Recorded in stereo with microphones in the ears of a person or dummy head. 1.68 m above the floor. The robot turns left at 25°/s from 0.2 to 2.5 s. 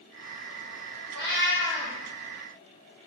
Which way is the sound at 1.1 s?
25° right (ahead or behind).